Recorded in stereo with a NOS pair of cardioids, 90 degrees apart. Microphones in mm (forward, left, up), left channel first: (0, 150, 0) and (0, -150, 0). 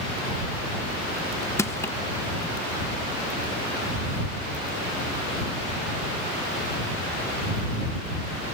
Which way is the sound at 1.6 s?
10° left.